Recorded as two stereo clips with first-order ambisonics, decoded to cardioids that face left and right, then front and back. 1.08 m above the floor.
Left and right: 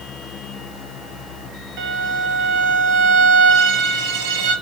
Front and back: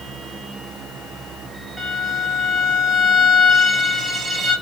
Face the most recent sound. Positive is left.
turn(degrees=-105)